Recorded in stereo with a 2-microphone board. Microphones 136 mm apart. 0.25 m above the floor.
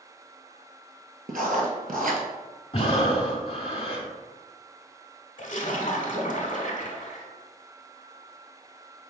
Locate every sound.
1.3 s writing: 75° right (ahead or behind), 0.8 m
2.7 s breathing: 45° left (ahead or behind), 0.7 m
5.4 s a splash: 65° left (ahead or behind), 0.8 m